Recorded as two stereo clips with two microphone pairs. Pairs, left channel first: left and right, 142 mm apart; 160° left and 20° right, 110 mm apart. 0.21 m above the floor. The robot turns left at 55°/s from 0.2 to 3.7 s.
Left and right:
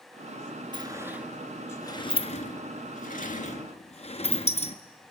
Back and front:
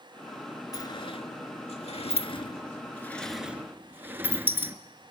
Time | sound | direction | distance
0.7 | a sliding door | 145° right | 1.2 m